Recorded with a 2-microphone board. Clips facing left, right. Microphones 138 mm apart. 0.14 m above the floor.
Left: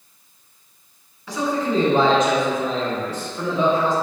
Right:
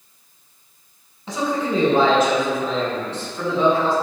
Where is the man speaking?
25° right (ahead or behind), 1.2 m; by 3.9 s 20° left (ahead or behind), 1.5 m.